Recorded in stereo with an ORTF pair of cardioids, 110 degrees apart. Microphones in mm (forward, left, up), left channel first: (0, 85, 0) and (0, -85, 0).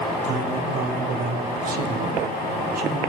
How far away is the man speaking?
About 0.8 m.